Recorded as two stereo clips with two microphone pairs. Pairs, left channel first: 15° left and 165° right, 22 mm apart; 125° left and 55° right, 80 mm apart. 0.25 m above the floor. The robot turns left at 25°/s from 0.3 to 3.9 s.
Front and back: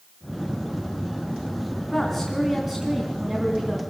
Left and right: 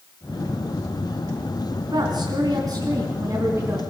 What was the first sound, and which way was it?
A woman speaking, 65° right.